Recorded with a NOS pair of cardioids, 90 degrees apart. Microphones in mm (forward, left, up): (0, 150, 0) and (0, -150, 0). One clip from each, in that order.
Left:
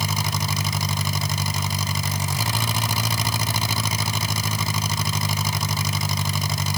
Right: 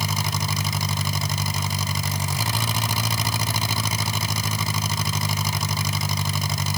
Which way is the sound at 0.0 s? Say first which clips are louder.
Left 1 dB; straight ahead.